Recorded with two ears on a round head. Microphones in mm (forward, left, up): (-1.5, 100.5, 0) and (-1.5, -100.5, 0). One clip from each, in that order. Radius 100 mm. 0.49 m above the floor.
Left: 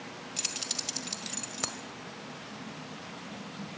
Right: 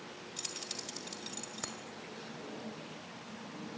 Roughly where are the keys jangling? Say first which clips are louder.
Left 8 dB; centre.